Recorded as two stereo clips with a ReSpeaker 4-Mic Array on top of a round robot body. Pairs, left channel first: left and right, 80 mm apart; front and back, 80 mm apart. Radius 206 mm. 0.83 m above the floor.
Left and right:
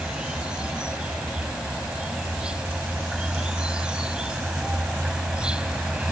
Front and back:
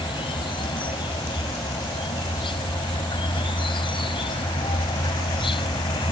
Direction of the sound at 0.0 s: 10° right.